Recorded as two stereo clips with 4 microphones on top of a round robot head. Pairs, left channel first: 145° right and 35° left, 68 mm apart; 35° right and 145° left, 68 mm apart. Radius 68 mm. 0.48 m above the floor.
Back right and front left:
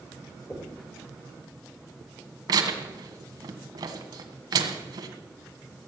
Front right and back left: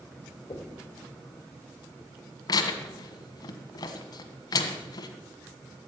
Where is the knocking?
70° right, 2 m.